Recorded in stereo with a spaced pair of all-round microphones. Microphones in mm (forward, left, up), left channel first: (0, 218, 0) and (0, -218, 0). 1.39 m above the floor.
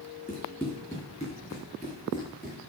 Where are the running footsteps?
10° left (ahead or behind), 4.5 m; by 2.6 s 20° left (ahead or behind), 5.5 m.